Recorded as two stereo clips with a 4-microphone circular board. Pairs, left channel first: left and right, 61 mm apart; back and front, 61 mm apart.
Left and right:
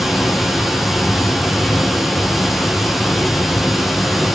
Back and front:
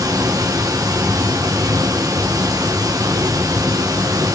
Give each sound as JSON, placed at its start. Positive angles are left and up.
{"t": 0.0, "sound": "running water", "azimuth_deg": -5, "distance_m": 5.0}